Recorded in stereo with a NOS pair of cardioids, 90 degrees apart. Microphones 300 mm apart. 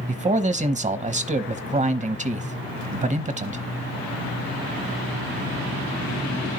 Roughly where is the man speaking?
Ahead right.